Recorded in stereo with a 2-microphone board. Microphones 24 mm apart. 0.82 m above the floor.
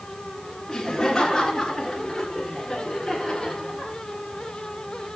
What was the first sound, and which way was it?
Laughter, 10° left (ahead or behind).